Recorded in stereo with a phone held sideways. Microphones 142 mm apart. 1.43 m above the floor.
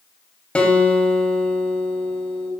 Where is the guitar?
10° left (ahead or behind), 3 m.